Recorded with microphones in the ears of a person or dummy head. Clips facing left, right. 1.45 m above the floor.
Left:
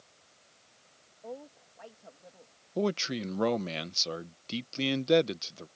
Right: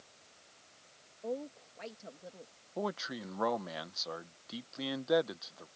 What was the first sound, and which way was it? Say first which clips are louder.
A woman speaking: right 5 dB; 35° right (ahead or behind).